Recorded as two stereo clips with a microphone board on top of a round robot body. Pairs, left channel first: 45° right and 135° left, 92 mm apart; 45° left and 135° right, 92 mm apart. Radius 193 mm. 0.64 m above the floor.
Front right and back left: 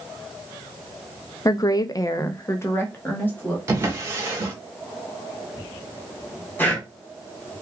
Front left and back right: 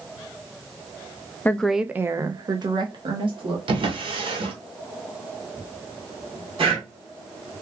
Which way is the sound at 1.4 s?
15° right.